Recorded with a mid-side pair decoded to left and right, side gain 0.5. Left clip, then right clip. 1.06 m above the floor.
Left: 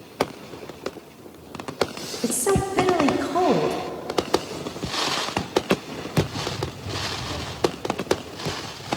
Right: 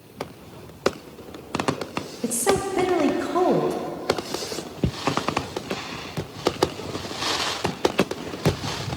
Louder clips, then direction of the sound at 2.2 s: Even; 5° left.